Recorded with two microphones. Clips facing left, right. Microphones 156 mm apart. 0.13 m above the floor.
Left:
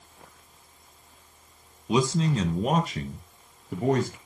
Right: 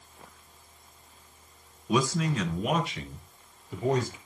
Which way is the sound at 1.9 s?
20° left (ahead or behind).